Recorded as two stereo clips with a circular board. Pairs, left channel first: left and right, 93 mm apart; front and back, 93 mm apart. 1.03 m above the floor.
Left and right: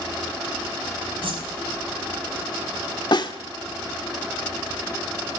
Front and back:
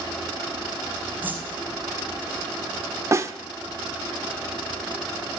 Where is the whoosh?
110° right, 4.5 m.